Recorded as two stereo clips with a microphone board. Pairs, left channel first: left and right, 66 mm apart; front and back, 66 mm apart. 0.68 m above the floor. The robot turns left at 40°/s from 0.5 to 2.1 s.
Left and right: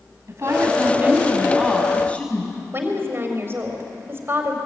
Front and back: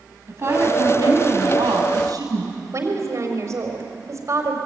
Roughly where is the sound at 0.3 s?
Behind right.